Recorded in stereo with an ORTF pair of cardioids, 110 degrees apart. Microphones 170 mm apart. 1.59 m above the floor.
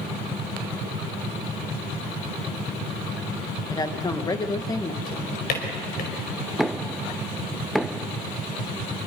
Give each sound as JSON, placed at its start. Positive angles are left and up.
{"t": 3.7, "sound": "a woman speaking", "azimuth_deg": 25, "distance_m": 2.0}
{"t": 5.0, "sound": "a drawer", "azimuth_deg": 65, "distance_m": 4.5}
{"t": 6.6, "sound": "knocking", "azimuth_deg": 0, "distance_m": 0.7}